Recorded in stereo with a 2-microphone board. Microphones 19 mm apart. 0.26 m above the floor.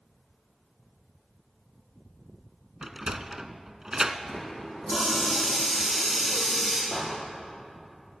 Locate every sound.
2.8 s a sliding door: 30° right (ahead or behind), 0.7 m
4.3 s a running tap: 5° left (ahead or behind), 6.5 m
6.9 s a door slam: 45° left (ahead or behind), 5 m